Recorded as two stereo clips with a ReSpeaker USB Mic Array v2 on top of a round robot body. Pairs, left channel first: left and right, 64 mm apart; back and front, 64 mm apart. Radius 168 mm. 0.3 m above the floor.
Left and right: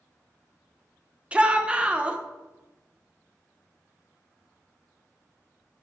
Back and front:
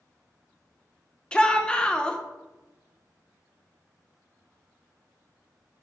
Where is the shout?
130° right, 1.0 m.